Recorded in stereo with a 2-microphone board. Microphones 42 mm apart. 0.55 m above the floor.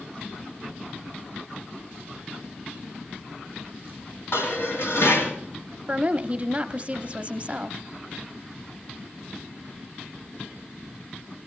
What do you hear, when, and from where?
4.3 s dishes clattering: 70° left (ahead or behind), 3 m
5.9 s a woman speaking: 30° right (ahead or behind), 0.9 m